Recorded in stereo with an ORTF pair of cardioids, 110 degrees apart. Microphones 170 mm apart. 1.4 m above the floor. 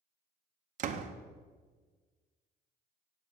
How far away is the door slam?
About 0.9 m.